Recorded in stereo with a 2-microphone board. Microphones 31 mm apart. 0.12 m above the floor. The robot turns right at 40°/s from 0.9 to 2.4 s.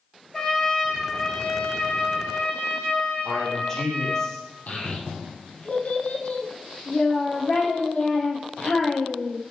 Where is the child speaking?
55° left (ahead or behind), 3 m.